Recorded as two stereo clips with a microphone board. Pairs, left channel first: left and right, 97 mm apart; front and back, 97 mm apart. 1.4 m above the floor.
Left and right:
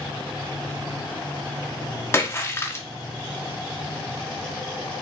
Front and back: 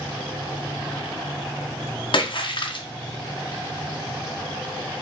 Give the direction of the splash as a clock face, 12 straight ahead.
11 o'clock.